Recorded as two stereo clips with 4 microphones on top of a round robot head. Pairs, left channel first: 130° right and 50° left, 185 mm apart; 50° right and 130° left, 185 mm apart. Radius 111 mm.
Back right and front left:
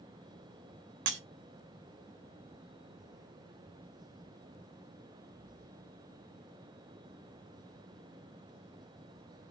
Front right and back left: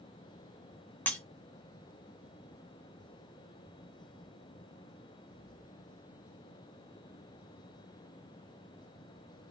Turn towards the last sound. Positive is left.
turn(degrees=30)